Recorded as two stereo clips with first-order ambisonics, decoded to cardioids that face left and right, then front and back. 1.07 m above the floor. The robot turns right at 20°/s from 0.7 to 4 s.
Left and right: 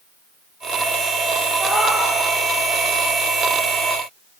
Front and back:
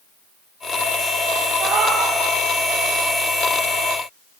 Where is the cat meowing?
175° left, 0.9 m; by 2.1 s 175° right, 0.9 m.